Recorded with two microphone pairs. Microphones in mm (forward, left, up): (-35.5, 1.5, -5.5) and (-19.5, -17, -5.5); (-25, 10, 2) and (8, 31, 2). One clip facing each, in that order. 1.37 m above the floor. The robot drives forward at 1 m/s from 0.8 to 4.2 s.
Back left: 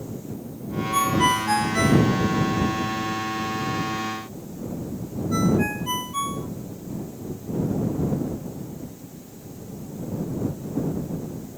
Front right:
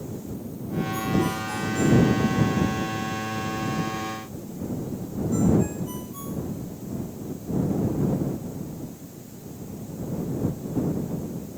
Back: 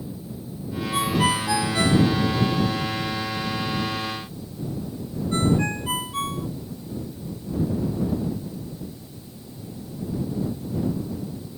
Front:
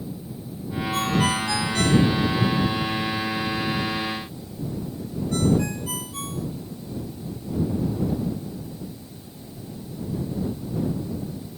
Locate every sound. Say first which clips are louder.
0.9 s a ringtone: back left 7 dB, back 1 dB; 135° left; by 6.5 s 155° left